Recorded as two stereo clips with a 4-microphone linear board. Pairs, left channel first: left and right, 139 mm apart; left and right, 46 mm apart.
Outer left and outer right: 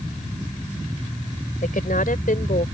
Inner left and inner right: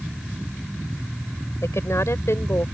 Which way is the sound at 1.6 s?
85° left.